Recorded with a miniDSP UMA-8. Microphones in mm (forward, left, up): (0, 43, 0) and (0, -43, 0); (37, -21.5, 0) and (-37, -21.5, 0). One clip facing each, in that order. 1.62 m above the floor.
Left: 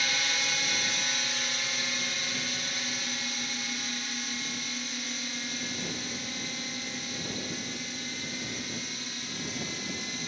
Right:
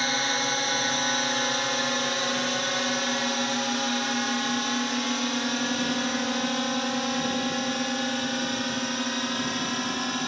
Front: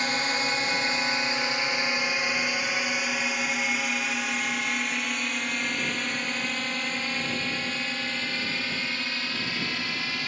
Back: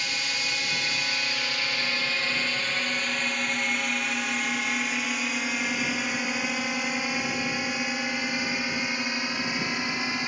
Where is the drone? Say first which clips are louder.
Right 6 dB, front 5 dB; 45° right; by 10.3 s 110° right.